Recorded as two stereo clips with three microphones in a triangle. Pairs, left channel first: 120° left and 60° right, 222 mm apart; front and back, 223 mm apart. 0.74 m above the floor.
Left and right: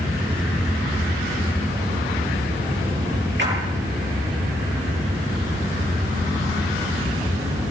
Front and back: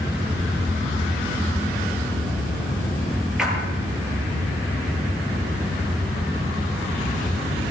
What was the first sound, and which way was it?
A splash, 95° right.